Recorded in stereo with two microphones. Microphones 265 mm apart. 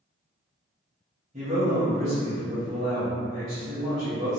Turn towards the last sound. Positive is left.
turn(degrees=-30)  # may be behind; listen again after turning